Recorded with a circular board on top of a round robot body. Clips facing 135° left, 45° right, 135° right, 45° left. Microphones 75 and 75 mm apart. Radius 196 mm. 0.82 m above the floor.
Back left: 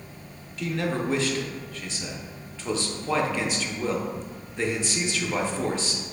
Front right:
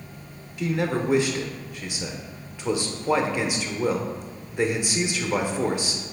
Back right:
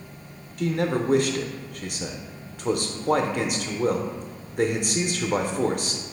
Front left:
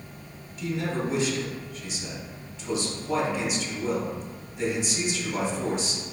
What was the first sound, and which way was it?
A man speaking, 120° right.